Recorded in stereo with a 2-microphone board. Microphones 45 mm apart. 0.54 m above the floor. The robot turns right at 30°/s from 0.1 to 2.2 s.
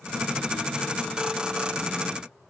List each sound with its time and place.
Only background noise.